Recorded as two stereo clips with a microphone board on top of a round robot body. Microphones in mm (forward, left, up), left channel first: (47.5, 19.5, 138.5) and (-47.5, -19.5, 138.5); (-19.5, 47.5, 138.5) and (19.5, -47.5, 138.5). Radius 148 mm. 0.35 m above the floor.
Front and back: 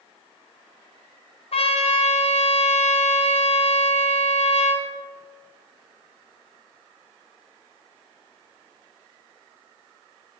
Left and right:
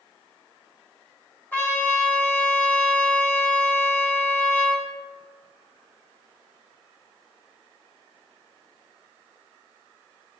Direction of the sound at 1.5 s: 40° left.